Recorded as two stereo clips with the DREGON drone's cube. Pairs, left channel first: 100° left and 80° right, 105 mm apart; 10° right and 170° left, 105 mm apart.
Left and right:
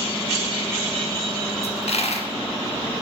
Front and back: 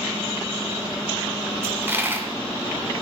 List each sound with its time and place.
1.6 s a dropped coin: 100° left, 1.6 m